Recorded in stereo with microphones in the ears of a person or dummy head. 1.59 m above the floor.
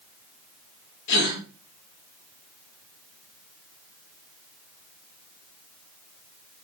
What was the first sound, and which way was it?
A gasp, 70° left (ahead or behind).